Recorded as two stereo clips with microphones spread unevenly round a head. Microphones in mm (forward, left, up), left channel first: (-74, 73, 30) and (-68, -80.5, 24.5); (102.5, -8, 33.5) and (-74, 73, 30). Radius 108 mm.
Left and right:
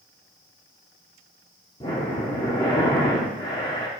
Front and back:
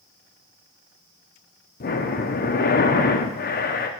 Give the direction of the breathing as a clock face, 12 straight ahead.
11 o'clock.